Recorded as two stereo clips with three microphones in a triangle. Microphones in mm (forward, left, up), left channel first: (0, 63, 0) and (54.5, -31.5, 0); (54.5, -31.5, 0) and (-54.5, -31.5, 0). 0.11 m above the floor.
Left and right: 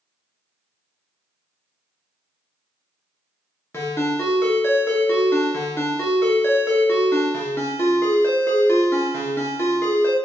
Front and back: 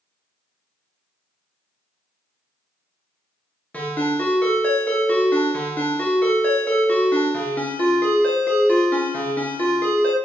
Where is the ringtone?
65° left, 0.8 m.